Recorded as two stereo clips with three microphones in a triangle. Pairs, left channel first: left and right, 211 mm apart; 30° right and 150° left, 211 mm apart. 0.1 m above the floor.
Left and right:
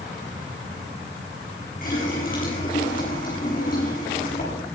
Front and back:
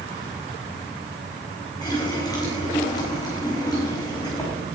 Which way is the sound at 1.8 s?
40° left.